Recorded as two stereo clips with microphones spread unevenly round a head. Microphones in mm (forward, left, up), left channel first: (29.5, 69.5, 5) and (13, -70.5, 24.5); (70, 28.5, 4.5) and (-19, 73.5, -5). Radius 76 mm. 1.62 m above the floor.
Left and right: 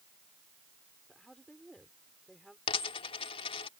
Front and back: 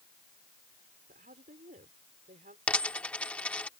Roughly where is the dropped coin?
Ahead left.